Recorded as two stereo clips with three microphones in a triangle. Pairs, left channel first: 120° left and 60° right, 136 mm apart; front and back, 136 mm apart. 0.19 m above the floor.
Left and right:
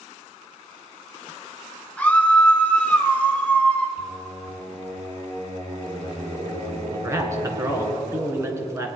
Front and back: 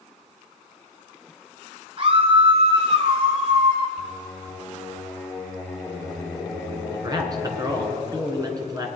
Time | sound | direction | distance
2.0 | a scream | 165° right | 1.8 m
4.0 | singing | 85° right | 2.5 m
6.9 | a man speaking | 125° right | 2 m